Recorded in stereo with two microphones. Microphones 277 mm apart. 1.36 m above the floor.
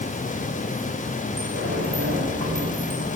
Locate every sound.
1.4 s a sliding door: 55° right (ahead or behind), 9 m